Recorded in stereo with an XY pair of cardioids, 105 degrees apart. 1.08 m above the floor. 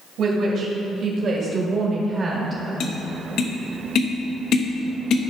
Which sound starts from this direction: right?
A woman speaking, at 0.2 s.